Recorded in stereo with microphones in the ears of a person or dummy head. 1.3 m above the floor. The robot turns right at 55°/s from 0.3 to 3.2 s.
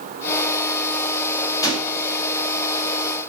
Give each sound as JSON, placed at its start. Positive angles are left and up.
{"t": 1.6, "sound": "a gunshot", "side_deg": 25, "distance_m": 1.1}